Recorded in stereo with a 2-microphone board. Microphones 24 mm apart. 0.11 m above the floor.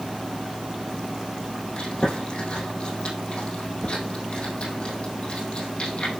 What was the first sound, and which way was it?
Chewing, 55° left (ahead or behind).